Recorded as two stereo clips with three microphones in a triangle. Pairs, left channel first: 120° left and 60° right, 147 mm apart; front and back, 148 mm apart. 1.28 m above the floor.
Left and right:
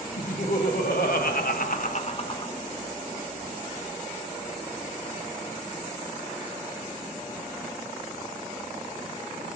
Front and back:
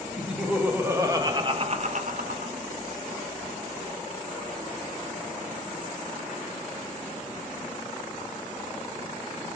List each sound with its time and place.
0.2 s laughter: 95° left, 2.5 m; by 2.5 s straight behind, 1.5 m